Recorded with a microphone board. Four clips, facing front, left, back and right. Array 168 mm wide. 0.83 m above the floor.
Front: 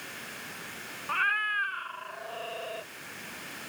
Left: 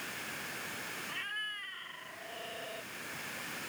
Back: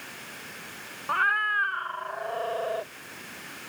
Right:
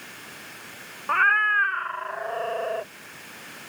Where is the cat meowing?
115° right; by 2.9 s 125° right.